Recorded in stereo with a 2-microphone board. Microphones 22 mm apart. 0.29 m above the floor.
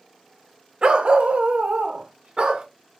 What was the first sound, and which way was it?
A dog barking, 45° right (ahead or behind).